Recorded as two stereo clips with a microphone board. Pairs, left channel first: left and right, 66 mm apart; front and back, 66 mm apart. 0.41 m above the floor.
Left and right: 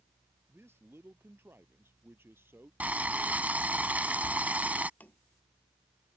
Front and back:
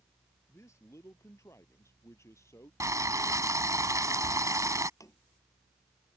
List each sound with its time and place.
0.5 s a man speaking: 40° right; by 2.7 s 35° right
2.8 s boiling: 155° right
5.0 s tapping: 25° left